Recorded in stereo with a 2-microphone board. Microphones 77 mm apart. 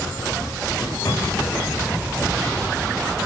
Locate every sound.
0.8 s a microwave: 35° left (ahead or behind), 8.5 m